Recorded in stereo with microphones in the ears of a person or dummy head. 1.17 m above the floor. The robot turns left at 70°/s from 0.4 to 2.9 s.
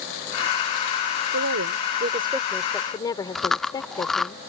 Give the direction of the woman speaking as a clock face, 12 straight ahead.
3 o'clock.